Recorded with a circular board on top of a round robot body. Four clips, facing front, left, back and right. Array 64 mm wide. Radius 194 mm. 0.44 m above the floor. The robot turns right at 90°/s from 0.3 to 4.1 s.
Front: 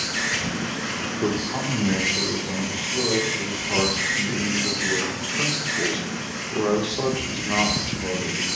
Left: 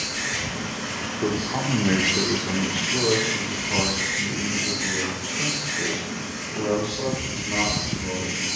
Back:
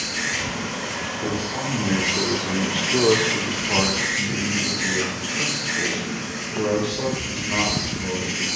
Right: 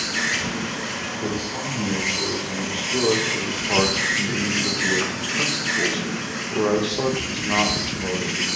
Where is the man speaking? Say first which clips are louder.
Left 5 dB, front 2 dB; 30° left, 1.4 m; by 8.5 s 70° right, 1.4 m.